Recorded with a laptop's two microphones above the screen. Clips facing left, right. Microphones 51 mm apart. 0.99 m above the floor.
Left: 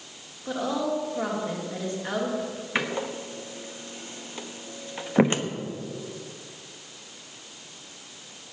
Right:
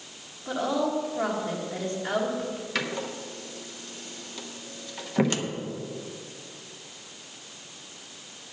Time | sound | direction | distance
0.5 | a woman speaking | 10° left (ahead or behind) | 1.4 m
2.8 | a door slam | 25° left (ahead or behind) | 0.9 m